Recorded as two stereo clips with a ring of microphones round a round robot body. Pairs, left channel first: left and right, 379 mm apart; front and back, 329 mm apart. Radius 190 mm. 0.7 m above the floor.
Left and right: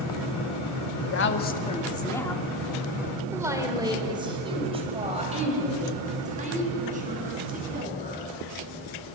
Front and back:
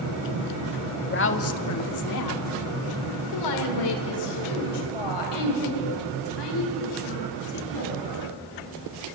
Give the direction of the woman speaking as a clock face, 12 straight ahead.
10 o'clock.